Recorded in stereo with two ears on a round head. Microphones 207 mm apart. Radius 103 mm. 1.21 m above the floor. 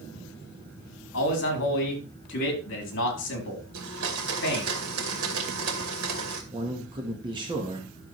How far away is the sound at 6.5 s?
About 1.4 m.